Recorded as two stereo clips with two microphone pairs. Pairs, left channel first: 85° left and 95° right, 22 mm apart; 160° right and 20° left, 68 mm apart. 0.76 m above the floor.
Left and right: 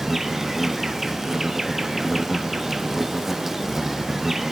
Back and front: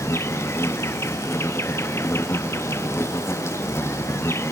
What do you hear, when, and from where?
0.0 s an insect: 160° right, 1.3 m